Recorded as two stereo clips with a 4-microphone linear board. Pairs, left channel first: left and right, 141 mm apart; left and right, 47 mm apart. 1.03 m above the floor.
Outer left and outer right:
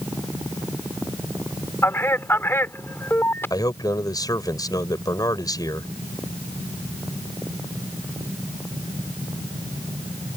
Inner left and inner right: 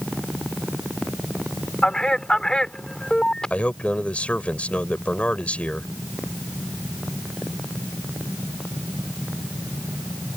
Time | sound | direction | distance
1.8 | a man speaking | 15° left (ahead or behind) | ?
3.5 | a man speaking | 25° left (ahead or behind) | ?